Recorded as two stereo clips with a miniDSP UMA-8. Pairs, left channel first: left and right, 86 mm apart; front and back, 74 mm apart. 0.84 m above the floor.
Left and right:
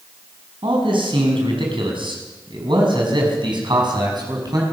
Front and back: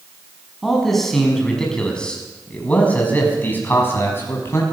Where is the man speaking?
90° right, 6.5 m; by 4.6 s 50° right, 6 m.